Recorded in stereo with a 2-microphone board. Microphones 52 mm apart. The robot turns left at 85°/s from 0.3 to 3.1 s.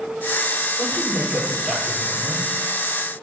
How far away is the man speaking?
About 7 m.